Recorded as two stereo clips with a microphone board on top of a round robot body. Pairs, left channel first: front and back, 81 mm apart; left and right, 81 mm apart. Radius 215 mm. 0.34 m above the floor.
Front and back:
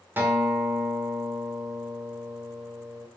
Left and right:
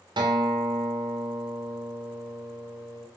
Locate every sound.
0.2 s a guitar: 115° right, 0.8 m